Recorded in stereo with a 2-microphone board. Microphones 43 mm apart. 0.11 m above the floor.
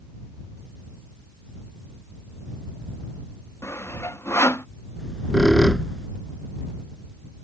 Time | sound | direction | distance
3.6 | sawing | 80° left | ?
5.0 | a squeak | 5° left (ahead or behind) | ?